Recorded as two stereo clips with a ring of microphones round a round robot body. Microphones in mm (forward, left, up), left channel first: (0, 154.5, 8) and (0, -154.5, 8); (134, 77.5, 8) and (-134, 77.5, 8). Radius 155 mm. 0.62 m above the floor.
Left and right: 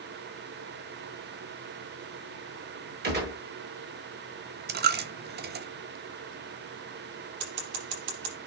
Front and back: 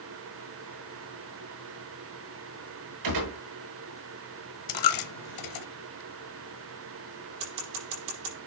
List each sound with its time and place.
3.0 s a gunshot: 150° right, 5.5 m
4.7 s a dropped coin: 30° right, 1.0 m
7.4 s scissors: 125° right, 6 m